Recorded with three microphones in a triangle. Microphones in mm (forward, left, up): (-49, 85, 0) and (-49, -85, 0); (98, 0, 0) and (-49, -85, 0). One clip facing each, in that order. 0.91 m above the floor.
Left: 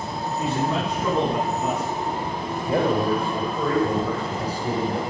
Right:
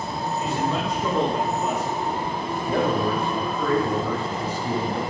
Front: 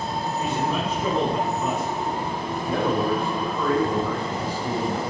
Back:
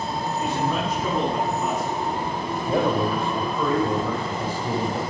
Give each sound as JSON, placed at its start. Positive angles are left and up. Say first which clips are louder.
{"t": 0.4, "sound": "a man speaking", "louder": "left 2 dB, back 1 dB", "azimuth_deg": 110, "distance_m": 7.0}
{"t": 2.7, "sound": "a man speaking", "louder": "left 2 dB, back 1 dB", "azimuth_deg": 145, "distance_m": 3.0}